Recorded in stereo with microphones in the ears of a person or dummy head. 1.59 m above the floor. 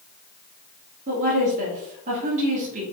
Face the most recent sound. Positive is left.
turn(degrees=-35)  # may be behind; listen again after turning